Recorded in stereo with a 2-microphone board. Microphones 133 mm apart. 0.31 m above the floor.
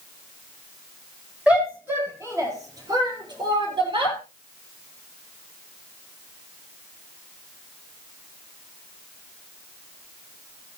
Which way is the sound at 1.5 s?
10° right (ahead or behind).